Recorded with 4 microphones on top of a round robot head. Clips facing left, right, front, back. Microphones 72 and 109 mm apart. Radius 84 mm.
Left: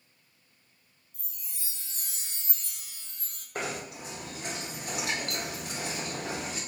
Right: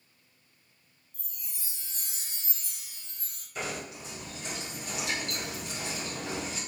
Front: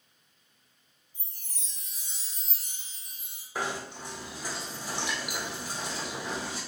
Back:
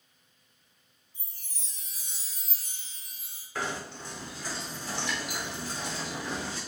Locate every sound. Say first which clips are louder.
1.1 s a chime: even, even; 100° right, 1.6 m
3.5 s knocking: left 2 dB, front 1 dB; 75° left, 0.6 m